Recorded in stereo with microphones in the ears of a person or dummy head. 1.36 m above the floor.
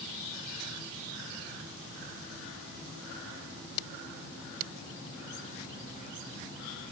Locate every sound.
Only background noise.